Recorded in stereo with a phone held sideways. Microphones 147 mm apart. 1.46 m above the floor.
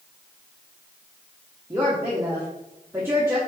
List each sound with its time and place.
1.7 s a woman speaking: 15° right (ahead or behind), 1.3 m